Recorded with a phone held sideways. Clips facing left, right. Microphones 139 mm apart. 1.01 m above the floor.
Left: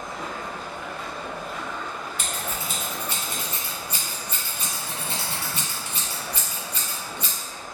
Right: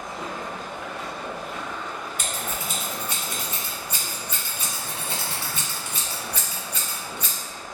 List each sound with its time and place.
0.0 s running water: 20° right (ahead or behind), 0.8 m
2.2 s scissors: 35° left (ahead or behind), 1.1 m